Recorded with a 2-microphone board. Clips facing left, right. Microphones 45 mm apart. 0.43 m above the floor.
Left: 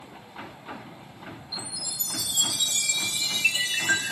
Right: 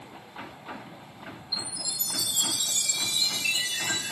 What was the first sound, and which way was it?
A chime, 50° left (ahead or behind).